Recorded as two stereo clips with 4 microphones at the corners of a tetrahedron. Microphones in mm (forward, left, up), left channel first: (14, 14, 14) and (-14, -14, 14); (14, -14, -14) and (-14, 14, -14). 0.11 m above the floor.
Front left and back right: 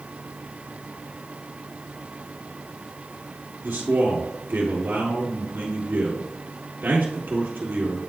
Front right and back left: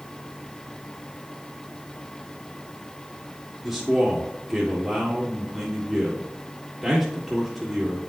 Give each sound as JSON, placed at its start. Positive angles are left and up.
{"t": 3.6, "sound": "a man speaking", "azimuth_deg": -155, "distance_m": 1.6}